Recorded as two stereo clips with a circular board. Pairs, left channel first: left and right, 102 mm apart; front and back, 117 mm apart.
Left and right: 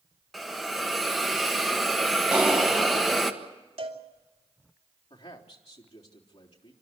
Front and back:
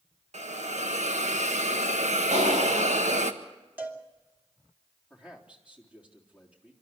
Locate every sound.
0.3 s a hiss: straight behind, 1.5 m
2.3 s a clap: 175° right, 6 m
3.8 s a cowbell: 105° right, 2.5 m
5.1 s a man speaking: 100° left, 3.5 m